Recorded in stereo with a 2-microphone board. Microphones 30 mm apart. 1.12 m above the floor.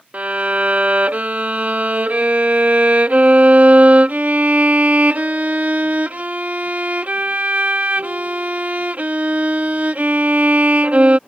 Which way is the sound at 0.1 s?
55° right (ahead or behind).